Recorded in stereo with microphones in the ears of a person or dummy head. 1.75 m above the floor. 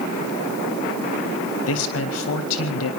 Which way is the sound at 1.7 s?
80° left.